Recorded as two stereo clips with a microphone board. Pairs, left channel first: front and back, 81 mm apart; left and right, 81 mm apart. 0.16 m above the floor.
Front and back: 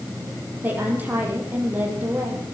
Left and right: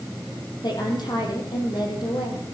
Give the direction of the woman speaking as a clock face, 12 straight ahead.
8 o'clock.